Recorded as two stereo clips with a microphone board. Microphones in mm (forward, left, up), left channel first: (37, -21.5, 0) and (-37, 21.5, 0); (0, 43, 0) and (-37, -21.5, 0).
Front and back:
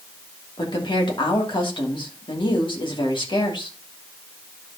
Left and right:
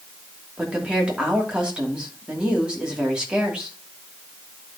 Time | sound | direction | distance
0.6 | a woman speaking | 45° right | 2.5 m